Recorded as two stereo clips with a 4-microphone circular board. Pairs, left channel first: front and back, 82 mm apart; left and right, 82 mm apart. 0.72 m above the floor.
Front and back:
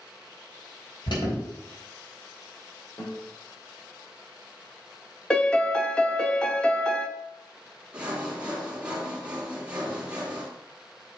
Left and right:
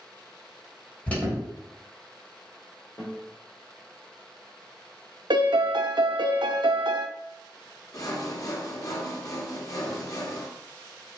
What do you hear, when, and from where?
1.1 s an alarm: 15° left, 3.5 m
3.0 s a guitar: 50° left, 3.5 m
5.3 s a piano: 80° right, 0.5 m
7.9 s sawing: 105° left, 1.7 m